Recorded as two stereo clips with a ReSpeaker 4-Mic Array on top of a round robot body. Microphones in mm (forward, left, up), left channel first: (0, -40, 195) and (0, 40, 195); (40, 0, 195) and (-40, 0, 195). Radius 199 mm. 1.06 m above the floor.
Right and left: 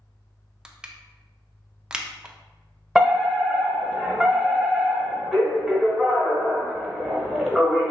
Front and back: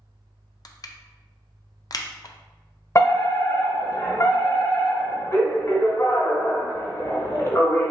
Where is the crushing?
15° left, 0.5 m.